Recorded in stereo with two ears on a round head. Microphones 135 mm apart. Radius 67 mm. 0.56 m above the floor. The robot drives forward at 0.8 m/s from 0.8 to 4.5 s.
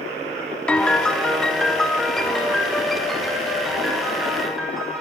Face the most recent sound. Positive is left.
turn(degrees=0)  # may be behind; listen again after turning